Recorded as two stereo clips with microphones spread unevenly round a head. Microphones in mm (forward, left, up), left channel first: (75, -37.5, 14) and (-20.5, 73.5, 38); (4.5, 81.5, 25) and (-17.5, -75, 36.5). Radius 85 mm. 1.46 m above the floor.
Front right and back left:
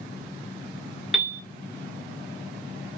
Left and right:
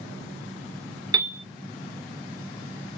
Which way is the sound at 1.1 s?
155° right.